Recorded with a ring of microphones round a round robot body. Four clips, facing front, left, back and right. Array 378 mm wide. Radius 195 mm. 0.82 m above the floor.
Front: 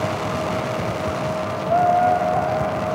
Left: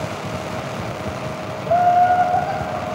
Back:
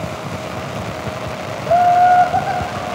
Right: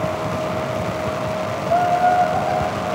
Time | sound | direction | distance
1.7 | laughter | 170° left | 1.2 m